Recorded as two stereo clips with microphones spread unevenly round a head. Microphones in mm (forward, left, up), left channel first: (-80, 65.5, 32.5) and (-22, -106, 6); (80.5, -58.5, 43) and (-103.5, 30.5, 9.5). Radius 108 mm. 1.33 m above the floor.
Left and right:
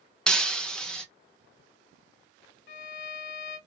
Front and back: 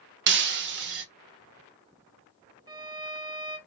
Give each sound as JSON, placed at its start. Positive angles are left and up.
{"t": 0.3, "sound": "breaking glass", "azimuth_deg": -170, "distance_m": 0.6}
{"t": 2.7, "sound": "a violin", "azimuth_deg": 95, "distance_m": 0.6}